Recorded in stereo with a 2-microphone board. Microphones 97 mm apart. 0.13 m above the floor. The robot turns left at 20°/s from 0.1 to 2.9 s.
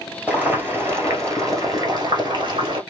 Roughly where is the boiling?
Ahead.